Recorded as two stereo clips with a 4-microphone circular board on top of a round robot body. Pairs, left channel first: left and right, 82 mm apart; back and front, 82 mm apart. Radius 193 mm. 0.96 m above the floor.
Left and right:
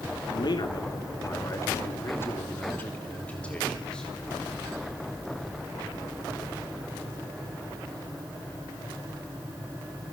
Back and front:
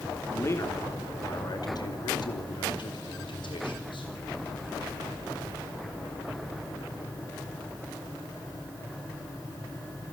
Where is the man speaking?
120° left, 2.5 m; by 4.1 s 170° left, 4 m.